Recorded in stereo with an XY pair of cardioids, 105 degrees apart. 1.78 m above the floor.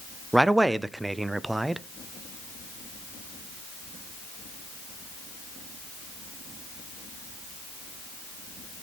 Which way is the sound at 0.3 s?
15° right.